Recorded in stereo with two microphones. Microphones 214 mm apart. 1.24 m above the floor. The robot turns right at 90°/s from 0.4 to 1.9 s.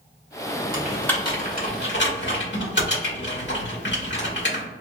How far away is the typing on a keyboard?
About 1.2 m.